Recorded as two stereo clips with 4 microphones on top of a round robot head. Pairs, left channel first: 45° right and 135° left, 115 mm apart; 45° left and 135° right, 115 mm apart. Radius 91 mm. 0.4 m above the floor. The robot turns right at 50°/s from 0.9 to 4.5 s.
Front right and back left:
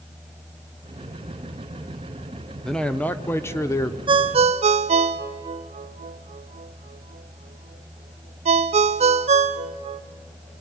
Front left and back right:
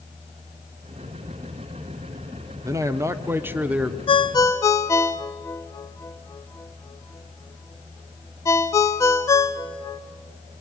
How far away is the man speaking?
About 1.1 m.